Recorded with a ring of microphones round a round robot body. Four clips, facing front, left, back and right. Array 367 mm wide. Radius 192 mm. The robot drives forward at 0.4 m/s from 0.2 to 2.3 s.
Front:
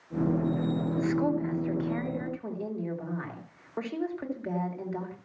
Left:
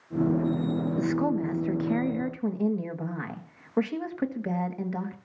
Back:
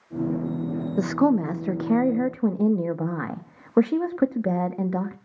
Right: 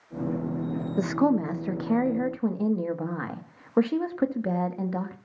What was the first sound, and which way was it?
A woman speaking, 155° right.